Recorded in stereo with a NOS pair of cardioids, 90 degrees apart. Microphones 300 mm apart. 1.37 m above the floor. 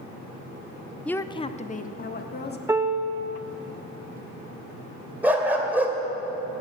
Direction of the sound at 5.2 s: 5° right.